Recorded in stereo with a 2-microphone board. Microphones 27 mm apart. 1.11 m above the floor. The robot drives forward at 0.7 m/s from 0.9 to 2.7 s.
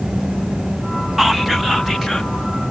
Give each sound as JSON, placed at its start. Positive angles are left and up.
{"t": 1.2, "sound": "whispering", "side_deg": -15, "distance_m": 0.6}